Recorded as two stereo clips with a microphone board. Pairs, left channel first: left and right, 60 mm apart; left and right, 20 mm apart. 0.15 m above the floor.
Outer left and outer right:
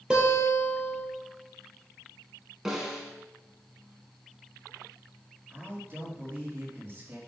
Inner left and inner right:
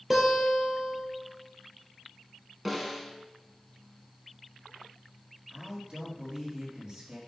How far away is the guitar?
About 2.5 m.